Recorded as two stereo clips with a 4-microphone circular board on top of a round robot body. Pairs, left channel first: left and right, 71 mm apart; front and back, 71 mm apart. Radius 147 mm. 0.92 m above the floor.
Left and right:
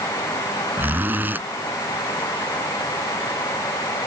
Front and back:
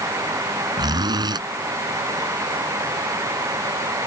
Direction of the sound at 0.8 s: 155° right.